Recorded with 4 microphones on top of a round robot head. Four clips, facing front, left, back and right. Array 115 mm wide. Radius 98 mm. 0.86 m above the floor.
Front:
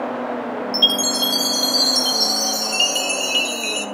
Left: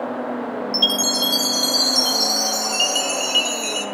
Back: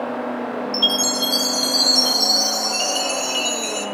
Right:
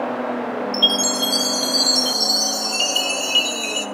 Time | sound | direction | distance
0.7 | a chime | 50° left | 2.5 m